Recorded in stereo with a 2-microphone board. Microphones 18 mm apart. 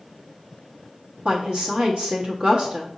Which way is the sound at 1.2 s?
55° right (ahead or behind).